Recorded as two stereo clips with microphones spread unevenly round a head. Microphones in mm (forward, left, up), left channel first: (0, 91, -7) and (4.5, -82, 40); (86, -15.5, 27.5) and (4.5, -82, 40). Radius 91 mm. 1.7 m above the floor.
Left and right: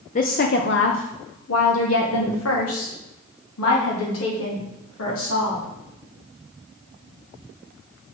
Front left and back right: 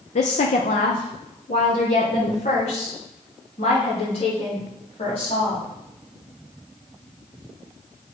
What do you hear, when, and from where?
0.1 s a woman speaking: 40° left, 0.7 m; by 5.7 s 95° left, 3.5 m